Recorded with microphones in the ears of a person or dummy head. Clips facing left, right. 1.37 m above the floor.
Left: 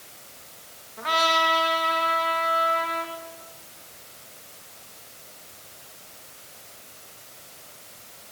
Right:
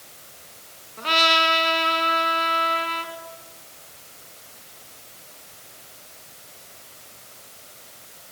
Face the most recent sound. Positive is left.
turn(degrees=-35)  # may be behind; listen again after turning